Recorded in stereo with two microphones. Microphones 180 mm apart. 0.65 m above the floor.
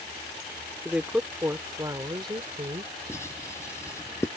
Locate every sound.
0.8 s a woman speaking: centre (ahead or behind); by 2.9 s 30° right (ahead or behind)
3.1 s writing: 15° left (ahead or behind)